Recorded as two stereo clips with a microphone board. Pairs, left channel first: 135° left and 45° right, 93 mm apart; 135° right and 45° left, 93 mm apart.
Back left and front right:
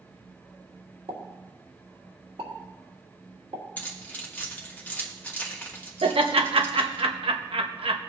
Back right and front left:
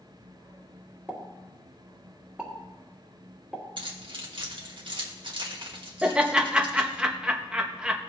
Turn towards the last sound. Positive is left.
turn(degrees=-35)